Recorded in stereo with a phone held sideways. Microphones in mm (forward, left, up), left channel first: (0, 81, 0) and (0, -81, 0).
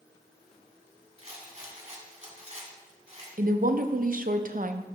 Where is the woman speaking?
60° right (ahead or behind), 0.5 m.